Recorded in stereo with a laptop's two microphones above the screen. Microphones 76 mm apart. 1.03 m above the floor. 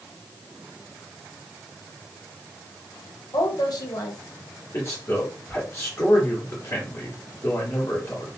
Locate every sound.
3.3 s a woman speaking: 55° left (ahead or behind), 1.0 m
4.7 s a man speaking: 35° left (ahead or behind), 2 m